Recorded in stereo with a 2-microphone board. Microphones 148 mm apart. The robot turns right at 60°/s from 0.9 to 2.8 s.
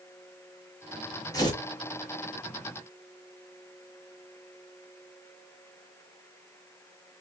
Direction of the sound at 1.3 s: 25° left (ahead or behind).